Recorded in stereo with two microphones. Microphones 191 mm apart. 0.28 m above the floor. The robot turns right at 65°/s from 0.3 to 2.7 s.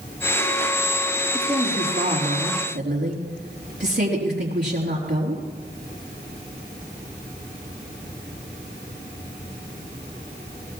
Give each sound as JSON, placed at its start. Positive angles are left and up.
{"t": 1.3, "sound": "a woman speaking", "azimuth_deg": 170, "distance_m": 5.0}